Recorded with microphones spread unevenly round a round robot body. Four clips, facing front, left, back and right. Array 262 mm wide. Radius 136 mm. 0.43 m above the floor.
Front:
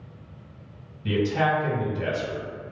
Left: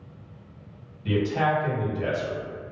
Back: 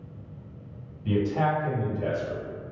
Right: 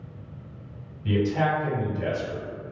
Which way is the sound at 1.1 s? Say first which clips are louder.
Even, front 2 dB; 5° left.